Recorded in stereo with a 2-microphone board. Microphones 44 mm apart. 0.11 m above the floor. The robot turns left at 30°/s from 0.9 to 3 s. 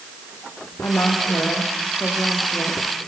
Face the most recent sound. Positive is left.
turn(degrees=20)